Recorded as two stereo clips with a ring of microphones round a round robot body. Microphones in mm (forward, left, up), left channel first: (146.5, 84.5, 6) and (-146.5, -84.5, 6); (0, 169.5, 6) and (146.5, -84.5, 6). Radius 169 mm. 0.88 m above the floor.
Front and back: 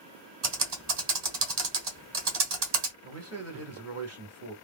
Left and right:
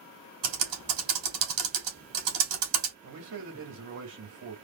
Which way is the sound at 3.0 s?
105° right.